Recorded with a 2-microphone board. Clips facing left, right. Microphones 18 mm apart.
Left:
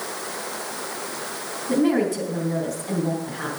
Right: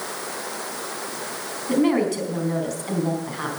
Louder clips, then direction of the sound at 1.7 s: Even; 40° right (ahead or behind).